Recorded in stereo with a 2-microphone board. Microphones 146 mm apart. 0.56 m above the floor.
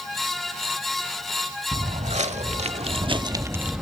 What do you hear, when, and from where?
1.7 s footsteps: 55° right (ahead or behind), 1.3 m; by 3.8 s centre (ahead or behind), 0.6 m